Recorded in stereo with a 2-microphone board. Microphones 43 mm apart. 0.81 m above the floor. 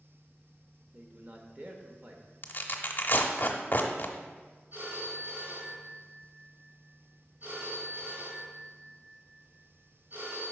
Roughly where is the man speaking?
Right.